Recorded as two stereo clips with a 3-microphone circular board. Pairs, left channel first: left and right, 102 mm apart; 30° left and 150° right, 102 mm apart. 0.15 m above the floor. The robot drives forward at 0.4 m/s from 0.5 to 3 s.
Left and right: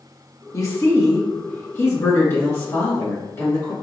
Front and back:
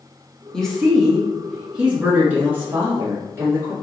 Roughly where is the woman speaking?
Left.